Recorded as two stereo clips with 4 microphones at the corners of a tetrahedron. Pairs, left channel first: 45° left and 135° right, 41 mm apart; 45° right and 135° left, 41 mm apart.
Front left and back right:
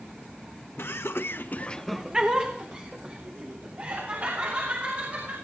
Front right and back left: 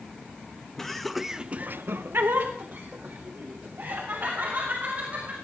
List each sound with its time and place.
0.8 s laughter: 35° left, 1.3 m; by 5.3 s 175° right, 5 m